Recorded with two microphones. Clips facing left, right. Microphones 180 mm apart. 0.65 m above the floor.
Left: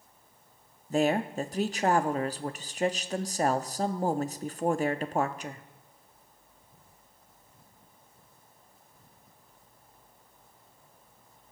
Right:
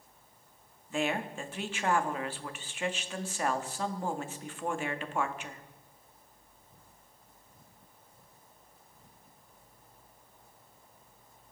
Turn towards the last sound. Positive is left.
turn(degrees=40)  # may be behind; listen again after turning